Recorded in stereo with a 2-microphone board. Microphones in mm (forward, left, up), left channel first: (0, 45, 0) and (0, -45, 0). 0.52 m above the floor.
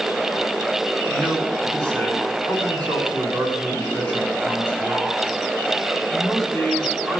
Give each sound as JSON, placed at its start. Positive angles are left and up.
{"t": 1.1, "sound": "a man speaking", "side_deg": 15, "distance_m": 7.0}